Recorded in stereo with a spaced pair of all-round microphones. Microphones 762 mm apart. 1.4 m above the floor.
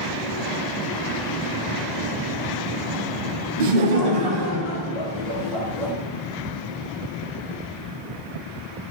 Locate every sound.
3.6 s laughter: 90° right, 0.7 m; by 5.9 s centre (ahead or behind), 1.9 m